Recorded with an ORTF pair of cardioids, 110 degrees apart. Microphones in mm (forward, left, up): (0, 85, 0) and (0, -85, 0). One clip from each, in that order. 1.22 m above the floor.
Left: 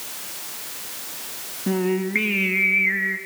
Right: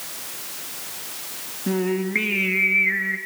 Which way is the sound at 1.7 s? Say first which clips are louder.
Left 1 dB; 5° left.